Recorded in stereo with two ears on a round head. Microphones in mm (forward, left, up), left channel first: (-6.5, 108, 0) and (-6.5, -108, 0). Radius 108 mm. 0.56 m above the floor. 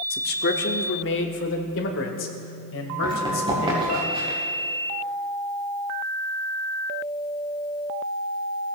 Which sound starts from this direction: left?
A man speaking, at 0.1 s.